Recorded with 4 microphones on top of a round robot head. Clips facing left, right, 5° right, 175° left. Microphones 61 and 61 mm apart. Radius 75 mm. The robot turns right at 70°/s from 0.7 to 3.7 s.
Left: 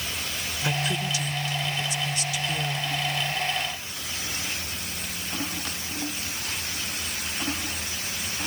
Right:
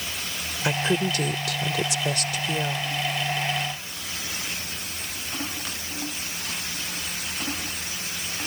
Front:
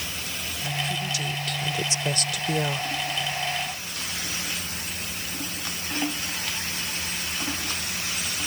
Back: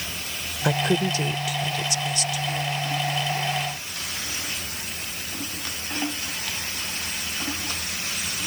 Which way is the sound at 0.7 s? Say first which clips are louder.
Right 5 dB, back 8 dB; 160° right.